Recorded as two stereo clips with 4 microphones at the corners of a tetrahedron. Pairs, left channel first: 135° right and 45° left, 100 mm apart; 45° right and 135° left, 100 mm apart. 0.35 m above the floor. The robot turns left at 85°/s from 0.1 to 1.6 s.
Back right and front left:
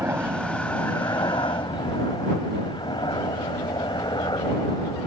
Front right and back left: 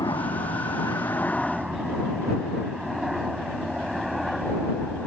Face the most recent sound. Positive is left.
turn(degrees=-135)